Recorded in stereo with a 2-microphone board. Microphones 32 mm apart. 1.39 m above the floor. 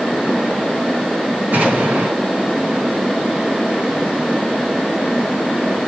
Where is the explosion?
65° right (ahead or behind), 5 m.